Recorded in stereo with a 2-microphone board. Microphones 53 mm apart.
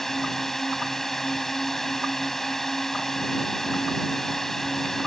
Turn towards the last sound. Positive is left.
turn(degrees=5)  # may be behind; listen again after turning